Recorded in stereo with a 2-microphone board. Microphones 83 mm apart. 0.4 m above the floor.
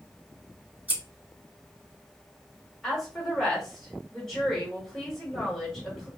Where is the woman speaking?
5° left (ahead or behind), 1.4 m.